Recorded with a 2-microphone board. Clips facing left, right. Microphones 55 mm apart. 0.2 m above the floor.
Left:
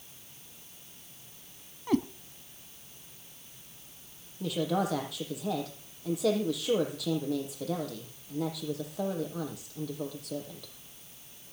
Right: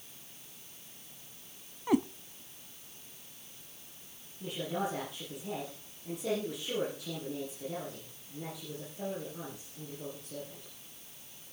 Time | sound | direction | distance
1.9 | a cat meowing | 10° right (ahead or behind) | 0.6 m
4.4 | a woman speaking | 75° left (ahead or behind) | 6 m